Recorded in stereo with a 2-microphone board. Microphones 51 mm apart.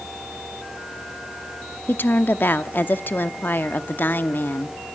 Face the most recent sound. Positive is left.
turn(degrees=40)  # may be behind; listen again after turning